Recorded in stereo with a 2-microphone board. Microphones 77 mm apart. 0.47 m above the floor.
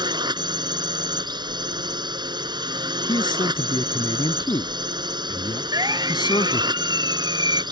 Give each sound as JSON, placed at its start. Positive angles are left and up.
{"t": 0.0, "sound": "a drone", "side_deg": -70}
{"t": 3.1, "sound": "a man speaking", "side_deg": 75}
{"t": 5.7, "sound": "a siren", "side_deg": -60}